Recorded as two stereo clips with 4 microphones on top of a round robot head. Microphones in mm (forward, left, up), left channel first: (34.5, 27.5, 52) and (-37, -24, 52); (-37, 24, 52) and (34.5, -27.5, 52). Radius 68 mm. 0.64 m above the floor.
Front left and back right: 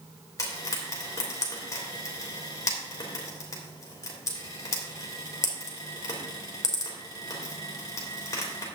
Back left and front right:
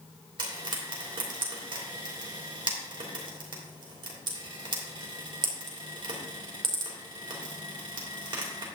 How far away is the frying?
About 3 m.